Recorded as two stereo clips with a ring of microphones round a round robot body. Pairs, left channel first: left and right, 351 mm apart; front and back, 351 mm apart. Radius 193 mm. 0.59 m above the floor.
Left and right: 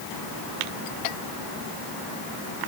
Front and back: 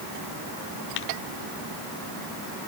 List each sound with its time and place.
Only background noise.